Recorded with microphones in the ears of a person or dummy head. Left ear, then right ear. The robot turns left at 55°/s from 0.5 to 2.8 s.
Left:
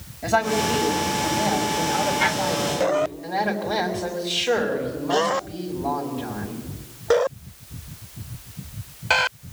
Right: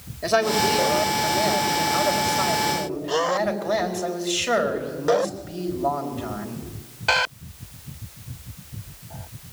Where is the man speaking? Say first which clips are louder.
Right 1 dB; 35° right, 4.5 m; by 6.7 s 160° right, 4.5 m.